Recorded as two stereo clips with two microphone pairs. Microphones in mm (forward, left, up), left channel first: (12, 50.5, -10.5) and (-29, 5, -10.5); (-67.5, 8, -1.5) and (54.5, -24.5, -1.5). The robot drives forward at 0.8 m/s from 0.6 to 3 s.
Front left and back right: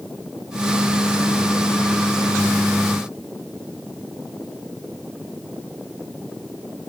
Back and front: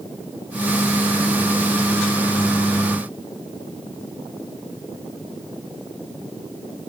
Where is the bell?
No bell in this recording.